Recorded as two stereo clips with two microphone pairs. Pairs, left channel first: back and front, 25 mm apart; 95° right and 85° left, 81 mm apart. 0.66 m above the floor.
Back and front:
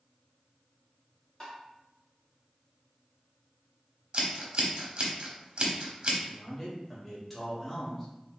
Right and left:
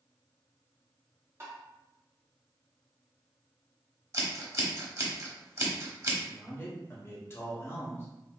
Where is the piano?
I don't hear a piano.